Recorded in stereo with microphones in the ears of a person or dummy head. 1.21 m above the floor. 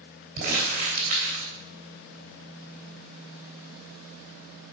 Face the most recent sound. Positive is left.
turn(degrees=-45)  # may be behind; listen again after turning